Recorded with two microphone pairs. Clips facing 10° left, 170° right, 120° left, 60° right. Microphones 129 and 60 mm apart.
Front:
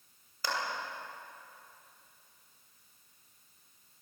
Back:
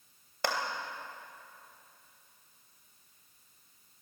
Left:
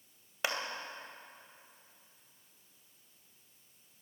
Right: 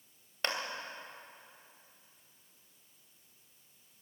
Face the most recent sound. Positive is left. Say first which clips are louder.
# back 3 dB, even
turn(degrees=-155)